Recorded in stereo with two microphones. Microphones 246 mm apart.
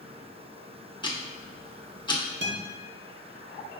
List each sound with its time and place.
1.0 s ticking: 20° left (ahead or behind), 0.7 m
2.4 s a guitar: 45° right (ahead or behind), 0.7 m